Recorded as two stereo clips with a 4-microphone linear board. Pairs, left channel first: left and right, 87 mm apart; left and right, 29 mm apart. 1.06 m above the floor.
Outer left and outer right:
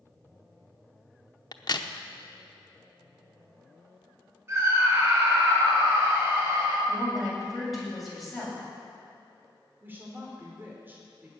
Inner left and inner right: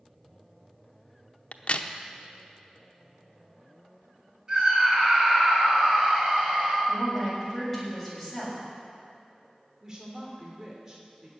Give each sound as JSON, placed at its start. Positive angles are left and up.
{"t": 1.5, "sound": "a crack", "side_deg": 50, "distance_m": 0.8}
{"t": 4.5, "sound": "a scream", "side_deg": -25, "distance_m": 6.5}
{"t": 6.9, "sound": "a woman speaking", "side_deg": 0, "distance_m": 7.0}
{"t": 9.8, "sound": "a woman speaking", "side_deg": -20, "distance_m": 3.0}